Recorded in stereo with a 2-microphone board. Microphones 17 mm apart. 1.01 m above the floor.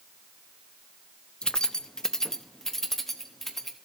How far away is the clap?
I don't hear a clap.